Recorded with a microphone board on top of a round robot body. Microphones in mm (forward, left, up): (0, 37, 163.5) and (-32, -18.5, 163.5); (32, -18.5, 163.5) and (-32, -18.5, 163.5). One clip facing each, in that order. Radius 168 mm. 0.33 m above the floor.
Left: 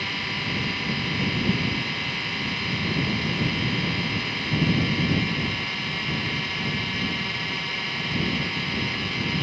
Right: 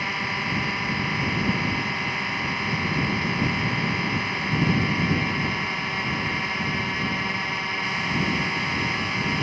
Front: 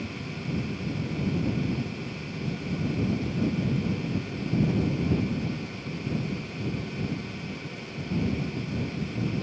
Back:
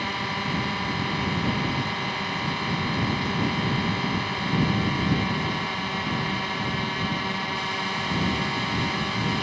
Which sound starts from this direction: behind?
A drone, at 0.0 s.